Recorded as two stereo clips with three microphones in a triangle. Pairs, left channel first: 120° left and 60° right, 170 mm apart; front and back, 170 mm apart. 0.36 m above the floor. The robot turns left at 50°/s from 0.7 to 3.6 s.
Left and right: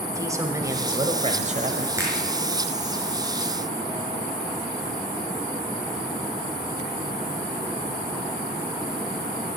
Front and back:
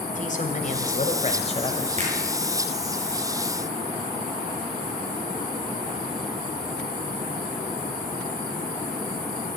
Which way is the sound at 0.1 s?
5° left.